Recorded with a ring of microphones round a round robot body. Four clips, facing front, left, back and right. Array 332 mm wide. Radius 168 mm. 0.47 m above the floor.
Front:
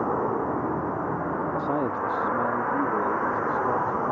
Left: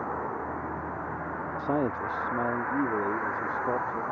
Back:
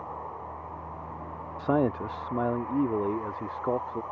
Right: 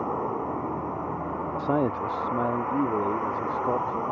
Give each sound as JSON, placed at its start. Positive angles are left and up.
{"t": 0.0, "sound": "a vehicle", "azimuth_deg": -15}
{"t": 1.6, "sound": "a man speaking", "azimuth_deg": -140}